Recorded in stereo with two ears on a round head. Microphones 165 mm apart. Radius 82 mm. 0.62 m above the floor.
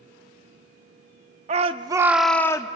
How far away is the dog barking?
No dog barking in this recording.